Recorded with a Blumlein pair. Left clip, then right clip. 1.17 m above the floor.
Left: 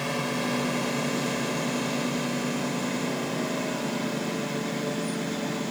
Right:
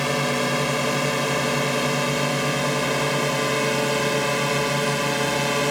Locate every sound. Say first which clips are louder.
0.0 s a drone: right 6 dB; 70° right; by 5.7 s 50° right